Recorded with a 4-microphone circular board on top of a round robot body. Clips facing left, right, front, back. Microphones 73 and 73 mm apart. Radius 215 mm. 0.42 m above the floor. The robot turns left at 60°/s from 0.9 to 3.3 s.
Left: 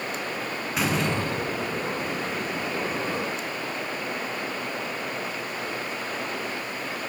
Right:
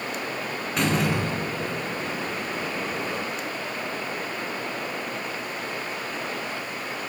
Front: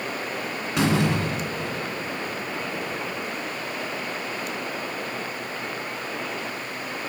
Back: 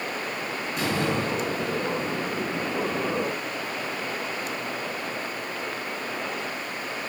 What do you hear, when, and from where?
0.8 s a door slam: 5° left, 7 m; by 2.0 s 60° right, 7 m